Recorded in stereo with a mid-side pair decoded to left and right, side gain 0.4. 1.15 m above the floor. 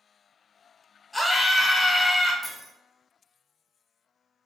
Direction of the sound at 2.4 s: 10° left.